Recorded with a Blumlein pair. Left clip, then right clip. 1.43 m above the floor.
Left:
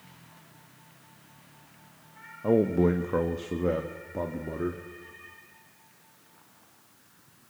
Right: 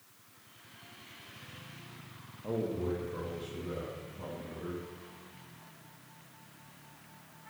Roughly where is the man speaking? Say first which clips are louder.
Left 11 dB; ahead left.